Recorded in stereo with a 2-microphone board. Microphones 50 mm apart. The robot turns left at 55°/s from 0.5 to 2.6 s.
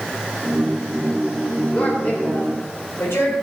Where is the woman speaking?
165° left, 5 m; by 3.3 s 115° left, 5 m.